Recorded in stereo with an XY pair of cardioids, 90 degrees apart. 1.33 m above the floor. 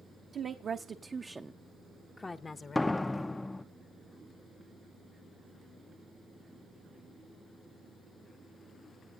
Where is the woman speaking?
60° right, 1.2 m; by 3.5 s 60° left, 1.6 m.